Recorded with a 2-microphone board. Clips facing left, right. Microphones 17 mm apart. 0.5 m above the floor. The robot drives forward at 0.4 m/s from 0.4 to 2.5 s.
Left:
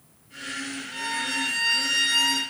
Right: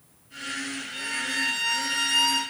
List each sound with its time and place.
0.9 s a violin: 50° left (ahead or behind), 1.7 m; by 2.4 s 35° left (ahead or behind), 2 m